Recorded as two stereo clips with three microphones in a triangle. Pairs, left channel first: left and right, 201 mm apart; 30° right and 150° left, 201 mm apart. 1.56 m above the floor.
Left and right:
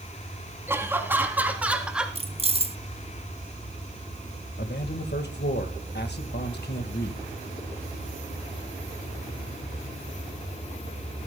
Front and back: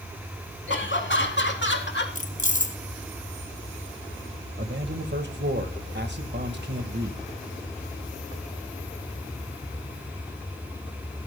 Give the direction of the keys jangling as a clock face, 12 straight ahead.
2 o'clock.